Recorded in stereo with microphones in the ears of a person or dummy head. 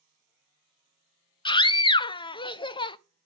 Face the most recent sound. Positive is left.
turn(degrees=25)  # may be behind; listen again after turning